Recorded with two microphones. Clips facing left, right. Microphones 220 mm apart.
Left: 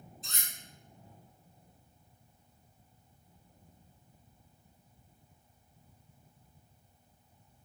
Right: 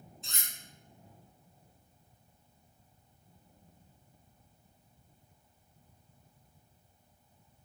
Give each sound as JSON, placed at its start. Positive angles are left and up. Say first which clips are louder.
{"t": 0.2, "sound": "cutlery clinking", "louder": "left 1 dB", "side_deg": 40, "distance_m": 1.1}